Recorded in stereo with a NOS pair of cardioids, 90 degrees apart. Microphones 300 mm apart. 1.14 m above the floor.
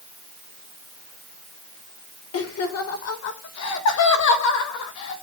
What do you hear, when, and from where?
2.3 s laughter: 50° left, 4 m; by 5.2 s 70° left, 5.5 m